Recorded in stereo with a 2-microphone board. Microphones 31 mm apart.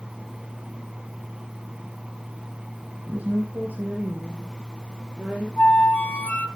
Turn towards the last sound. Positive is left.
turn(degrees=65)  # may be behind; listen again after turning